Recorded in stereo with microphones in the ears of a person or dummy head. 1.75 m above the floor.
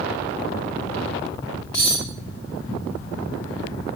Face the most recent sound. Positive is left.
turn(degrees=5)  # may be behind; listen again after turning